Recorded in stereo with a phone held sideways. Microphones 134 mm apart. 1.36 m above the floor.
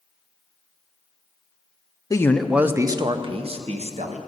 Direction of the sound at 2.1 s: 25° left (ahead or behind).